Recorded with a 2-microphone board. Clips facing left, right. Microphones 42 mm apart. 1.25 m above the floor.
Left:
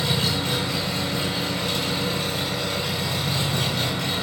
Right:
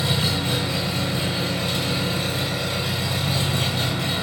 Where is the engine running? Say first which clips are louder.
Right 1 dB; 15° right (ahead or behind), 1.4 m.